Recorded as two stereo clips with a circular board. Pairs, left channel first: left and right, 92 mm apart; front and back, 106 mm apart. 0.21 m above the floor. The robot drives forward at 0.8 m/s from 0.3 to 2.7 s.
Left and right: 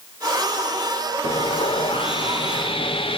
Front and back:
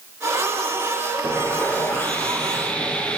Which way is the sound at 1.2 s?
75° left.